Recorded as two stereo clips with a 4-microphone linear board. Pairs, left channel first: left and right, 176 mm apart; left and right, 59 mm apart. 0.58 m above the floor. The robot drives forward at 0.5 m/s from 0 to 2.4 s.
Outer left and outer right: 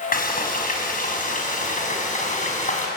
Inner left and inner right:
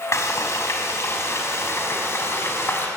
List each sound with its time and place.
0.1 s frying: 55° left (ahead or behind), 5 m; by 2.9 s 45° left (ahead or behind), 6 m